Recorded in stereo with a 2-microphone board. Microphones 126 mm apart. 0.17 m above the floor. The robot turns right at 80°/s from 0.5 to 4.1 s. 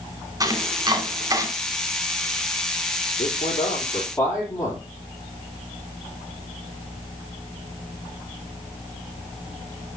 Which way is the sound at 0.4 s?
25° right (ahead or behind).